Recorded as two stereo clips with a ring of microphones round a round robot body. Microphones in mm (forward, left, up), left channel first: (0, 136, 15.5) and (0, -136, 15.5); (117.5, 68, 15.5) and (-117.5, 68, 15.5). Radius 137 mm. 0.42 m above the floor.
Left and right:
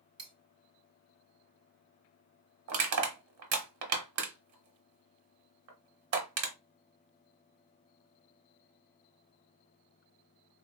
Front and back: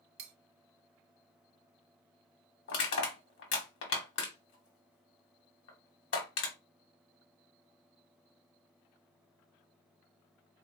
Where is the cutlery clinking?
160° right, 0.5 m.